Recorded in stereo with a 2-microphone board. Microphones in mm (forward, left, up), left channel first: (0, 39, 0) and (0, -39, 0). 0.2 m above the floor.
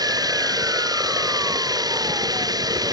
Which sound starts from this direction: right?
Running water, at 0.0 s.